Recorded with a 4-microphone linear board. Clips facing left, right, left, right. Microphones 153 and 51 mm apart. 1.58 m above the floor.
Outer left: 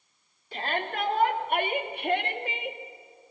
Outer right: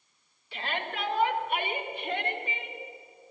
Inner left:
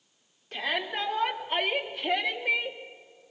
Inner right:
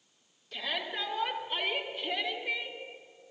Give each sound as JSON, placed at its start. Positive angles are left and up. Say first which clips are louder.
{"t": 0.5, "sound": "a shout", "louder": "outer left 4 dB, inner left 5 dB", "side_deg": 45, "distance_m": 4.5}